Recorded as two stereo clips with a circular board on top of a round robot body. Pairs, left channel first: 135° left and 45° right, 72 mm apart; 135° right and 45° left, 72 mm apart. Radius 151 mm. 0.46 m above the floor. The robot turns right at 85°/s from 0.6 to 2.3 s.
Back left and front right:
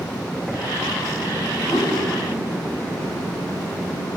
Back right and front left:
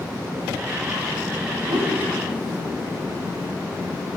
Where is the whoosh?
35° left, 1.4 m; by 2.0 s 60° left, 1.4 m.